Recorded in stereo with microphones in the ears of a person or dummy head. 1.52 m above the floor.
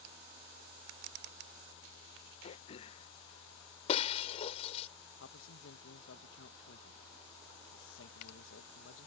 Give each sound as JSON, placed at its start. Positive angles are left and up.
{"t": 2.4, "sound": "throat clearing", "side_deg": 35}
{"t": 3.9, "sound": "breaking glass", "side_deg": 40}
{"t": 5.2, "sound": "a man speaking", "side_deg": 80}